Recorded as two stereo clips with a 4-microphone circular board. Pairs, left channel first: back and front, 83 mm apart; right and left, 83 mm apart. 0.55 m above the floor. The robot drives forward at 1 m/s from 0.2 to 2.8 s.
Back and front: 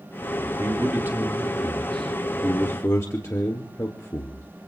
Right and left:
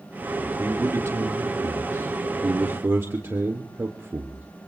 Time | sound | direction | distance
0.4 | a man speaking | 35° left | 1.9 m